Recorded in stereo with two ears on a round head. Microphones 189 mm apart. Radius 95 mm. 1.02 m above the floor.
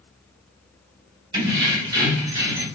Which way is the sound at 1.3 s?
20° right (ahead or behind).